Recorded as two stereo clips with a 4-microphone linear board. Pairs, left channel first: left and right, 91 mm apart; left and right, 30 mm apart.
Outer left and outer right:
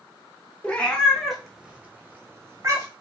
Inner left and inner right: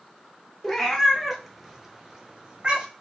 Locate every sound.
0.6 s a cat meowing: 15° left (ahead or behind), 1.0 m; by 2.9 s 30° right (ahead or behind), 1.1 m